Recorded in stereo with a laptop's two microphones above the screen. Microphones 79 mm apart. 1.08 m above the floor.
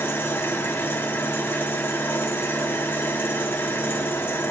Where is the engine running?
30° left (ahead or behind), 1.0 m.